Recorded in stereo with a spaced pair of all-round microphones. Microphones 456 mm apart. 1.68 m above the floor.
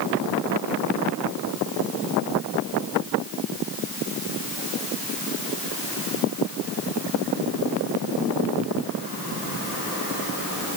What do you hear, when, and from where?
Only background noise.